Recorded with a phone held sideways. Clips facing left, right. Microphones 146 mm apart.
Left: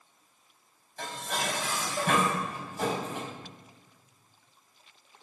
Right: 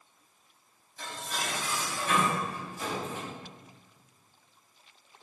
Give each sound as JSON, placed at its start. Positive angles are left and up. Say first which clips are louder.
{"t": 1.0, "sound": "dishes clattering", "louder": "left 3 dB", "side_deg": 70, "distance_m": 4.0}